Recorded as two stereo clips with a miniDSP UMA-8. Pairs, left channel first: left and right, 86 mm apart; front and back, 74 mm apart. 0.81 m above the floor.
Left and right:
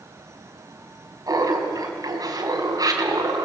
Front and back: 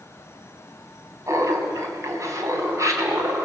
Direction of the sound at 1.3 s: 135° right.